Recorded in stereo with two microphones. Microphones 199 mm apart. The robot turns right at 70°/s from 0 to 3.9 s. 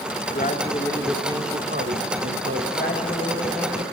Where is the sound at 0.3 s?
125° left, 1.7 m; by 2.7 s 70° right, 1.7 m.